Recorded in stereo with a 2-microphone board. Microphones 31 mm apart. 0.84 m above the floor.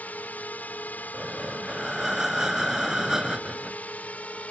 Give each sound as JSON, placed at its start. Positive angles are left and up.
{"t": 0.0, "sound": "a drone", "side_deg": 60}
{"t": 1.1, "sound": "breathing", "side_deg": -15}